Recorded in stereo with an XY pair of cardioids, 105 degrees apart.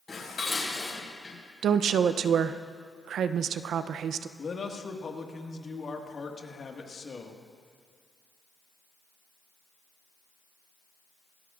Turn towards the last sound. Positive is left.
turn(degrees=40)